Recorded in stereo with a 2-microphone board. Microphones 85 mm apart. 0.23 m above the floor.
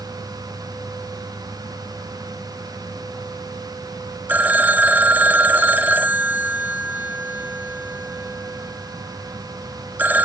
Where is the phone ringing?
20° right (ahead or behind), 0.5 m.